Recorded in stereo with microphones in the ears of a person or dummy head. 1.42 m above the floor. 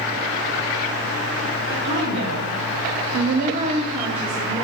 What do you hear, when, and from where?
1.7 s a woman speaking: 55° right (ahead or behind), 1.1 m; by 4.7 s 5° left (ahead or behind), 1.0 m